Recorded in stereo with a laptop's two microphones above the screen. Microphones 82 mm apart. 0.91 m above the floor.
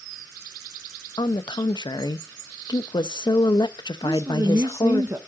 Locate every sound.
1.2 s a woman speaking: 60° left (ahead or behind), 0.5 m
4.0 s a woman speaking: 35° right (ahead or behind), 0.7 m